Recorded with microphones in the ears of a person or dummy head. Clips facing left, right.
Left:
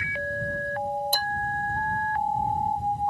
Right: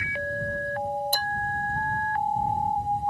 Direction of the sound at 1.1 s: 10° left (ahead or behind).